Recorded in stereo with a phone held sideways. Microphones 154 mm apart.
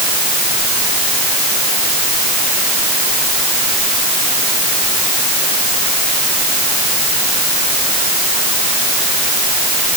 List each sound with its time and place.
Only background noise.